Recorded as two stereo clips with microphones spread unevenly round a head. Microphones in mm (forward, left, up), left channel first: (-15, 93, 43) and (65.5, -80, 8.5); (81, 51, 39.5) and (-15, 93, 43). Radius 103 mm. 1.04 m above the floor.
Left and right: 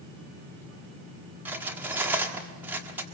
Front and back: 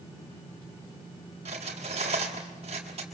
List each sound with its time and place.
1.4 s cutlery clinking: 150° right, 1.4 m